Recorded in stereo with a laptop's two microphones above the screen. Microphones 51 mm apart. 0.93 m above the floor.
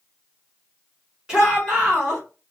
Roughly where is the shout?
Centre.